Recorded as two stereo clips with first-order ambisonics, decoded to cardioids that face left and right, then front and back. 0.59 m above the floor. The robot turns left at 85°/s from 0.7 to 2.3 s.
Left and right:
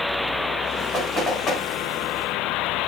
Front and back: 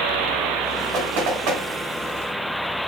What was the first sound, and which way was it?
Knocking, 155° right.